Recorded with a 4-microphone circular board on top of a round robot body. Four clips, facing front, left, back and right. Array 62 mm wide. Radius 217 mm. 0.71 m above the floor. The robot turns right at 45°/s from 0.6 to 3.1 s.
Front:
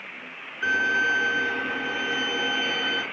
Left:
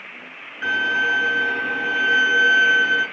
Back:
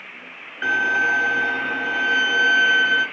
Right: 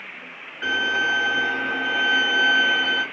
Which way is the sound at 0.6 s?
175° left.